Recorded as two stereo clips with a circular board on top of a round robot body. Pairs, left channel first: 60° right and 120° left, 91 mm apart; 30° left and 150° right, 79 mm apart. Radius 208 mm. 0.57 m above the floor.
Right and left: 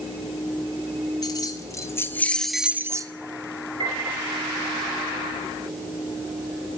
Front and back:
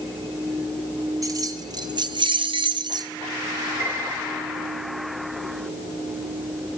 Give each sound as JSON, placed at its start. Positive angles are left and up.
{"t": 1.2, "sound": "keys jangling", "azimuth_deg": -105, "distance_m": 1.3}
{"t": 3.8, "sound": "a piano", "azimuth_deg": 150, "distance_m": 4.5}